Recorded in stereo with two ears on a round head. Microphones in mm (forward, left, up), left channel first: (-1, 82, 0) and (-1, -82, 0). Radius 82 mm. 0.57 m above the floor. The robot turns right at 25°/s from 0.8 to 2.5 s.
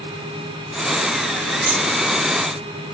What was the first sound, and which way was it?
Cutlery clinking, 55° right (ahead or behind).